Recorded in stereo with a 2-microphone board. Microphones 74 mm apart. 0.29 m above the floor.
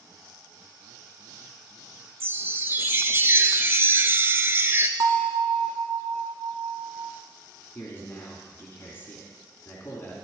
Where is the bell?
65° right (ahead or behind), 1.2 m.